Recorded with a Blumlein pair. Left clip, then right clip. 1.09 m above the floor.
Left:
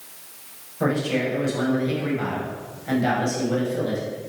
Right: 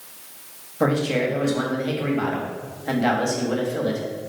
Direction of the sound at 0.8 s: 70° right.